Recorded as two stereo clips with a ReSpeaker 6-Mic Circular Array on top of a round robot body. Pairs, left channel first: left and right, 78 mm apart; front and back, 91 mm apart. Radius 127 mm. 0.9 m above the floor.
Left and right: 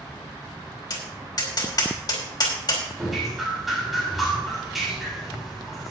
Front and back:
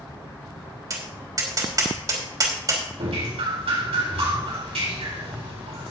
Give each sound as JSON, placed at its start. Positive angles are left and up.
{"t": 0.9, "sound": "tapping", "azimuth_deg": 130, "distance_m": 3.5}
{"t": 3.0, "sound": "dripping", "azimuth_deg": 180, "distance_m": 3.5}